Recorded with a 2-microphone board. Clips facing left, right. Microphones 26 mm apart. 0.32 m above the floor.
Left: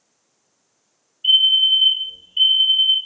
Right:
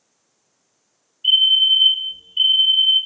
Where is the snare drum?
No snare drum in this recording.